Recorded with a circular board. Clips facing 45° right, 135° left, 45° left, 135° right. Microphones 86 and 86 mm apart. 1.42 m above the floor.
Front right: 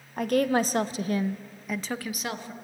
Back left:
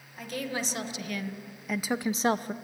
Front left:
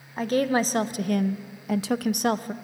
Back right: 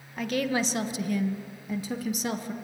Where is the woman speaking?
10° right, 1.3 m; by 2.5 s 90° left, 0.8 m.